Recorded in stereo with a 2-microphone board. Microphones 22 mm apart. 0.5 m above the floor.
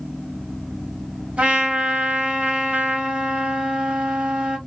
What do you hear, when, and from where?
1.4 s a trumpet: 80° right, 1.3 m